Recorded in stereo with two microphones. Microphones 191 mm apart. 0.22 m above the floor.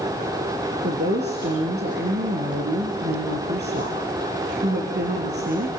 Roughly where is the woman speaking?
Right.